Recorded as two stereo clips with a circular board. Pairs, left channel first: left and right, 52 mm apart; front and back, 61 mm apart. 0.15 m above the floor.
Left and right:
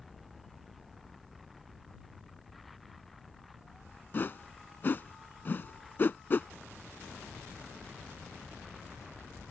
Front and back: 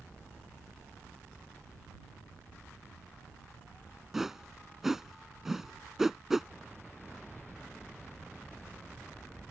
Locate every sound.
4.1 s a whoosh: 100° left